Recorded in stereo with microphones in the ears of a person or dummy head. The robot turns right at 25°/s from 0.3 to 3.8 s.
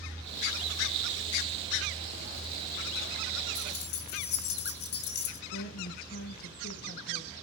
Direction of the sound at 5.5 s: 50° left (ahead or behind).